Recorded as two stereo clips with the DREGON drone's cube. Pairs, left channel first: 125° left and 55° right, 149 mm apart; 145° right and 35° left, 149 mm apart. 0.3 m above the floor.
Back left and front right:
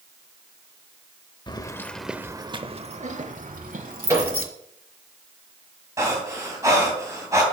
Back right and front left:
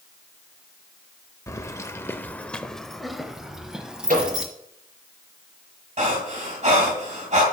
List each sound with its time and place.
1.5 s keys jangling: 155° left, 0.7 m; by 4.5 s 50° right, 1.6 m
4.1 s a microwave: 15° left, 4 m
6.0 s breathing: 10° left, 2.5 m